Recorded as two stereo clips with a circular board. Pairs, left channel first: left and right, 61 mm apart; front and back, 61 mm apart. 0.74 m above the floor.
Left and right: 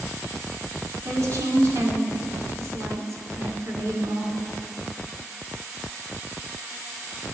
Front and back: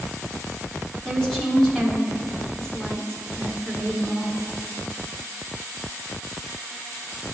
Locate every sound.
1.1 s a woman speaking: 80° right, 1.5 m